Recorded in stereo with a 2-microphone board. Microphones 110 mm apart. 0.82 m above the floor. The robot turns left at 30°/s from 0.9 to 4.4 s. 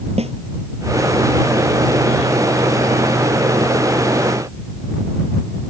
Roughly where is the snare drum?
Right.